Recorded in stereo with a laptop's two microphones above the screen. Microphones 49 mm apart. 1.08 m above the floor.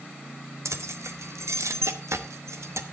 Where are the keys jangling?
85° right, 1.0 m.